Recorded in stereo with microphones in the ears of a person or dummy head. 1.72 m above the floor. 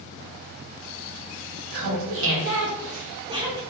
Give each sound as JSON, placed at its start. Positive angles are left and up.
{"t": 1.7, "sound": "laughter", "side_deg": -55, "distance_m": 1.3}